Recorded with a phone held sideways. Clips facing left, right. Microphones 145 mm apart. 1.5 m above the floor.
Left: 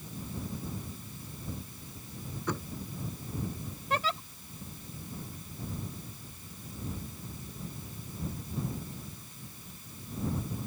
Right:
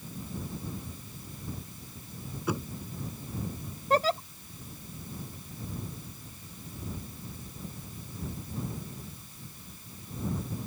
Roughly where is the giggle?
Right.